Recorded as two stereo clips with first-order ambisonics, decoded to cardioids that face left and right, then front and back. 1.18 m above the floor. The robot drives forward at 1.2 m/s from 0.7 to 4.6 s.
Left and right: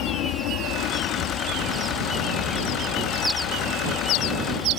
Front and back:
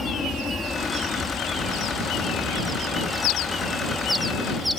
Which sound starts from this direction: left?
An aircraft, at 0.0 s.